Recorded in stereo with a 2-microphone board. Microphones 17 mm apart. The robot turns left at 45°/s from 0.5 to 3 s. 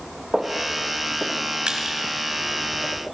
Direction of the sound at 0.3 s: 30° right (ahead or behind).